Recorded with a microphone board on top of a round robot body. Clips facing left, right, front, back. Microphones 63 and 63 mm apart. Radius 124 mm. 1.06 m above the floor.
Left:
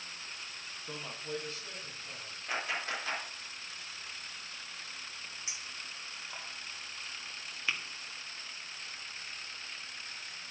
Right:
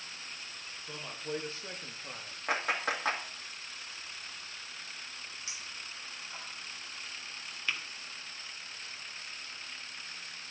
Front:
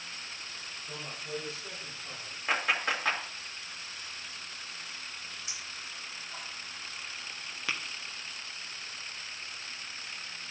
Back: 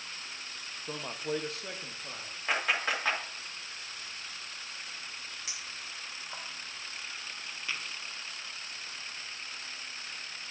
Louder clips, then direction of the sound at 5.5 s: Even, even; 160° left.